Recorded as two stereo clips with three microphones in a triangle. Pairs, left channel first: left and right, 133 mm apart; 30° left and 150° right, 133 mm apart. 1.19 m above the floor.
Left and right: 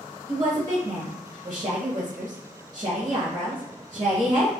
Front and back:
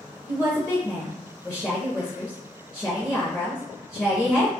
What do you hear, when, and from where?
0.3 s a woman speaking: 40° right, 0.6 m